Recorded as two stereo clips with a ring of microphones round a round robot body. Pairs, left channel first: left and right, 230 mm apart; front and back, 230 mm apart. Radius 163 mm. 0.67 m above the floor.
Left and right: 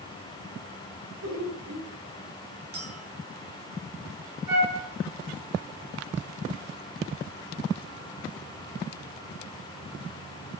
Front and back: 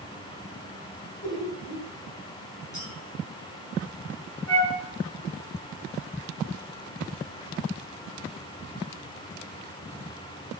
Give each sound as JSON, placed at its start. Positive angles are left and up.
{"t": 1.2, "sound": "laughter", "azimuth_deg": -75, "distance_m": 8.0}
{"t": 2.7, "sound": "a clink", "azimuth_deg": -70, "distance_m": 5.0}
{"t": 4.5, "sound": "a flute", "azimuth_deg": -115, "distance_m": 5.0}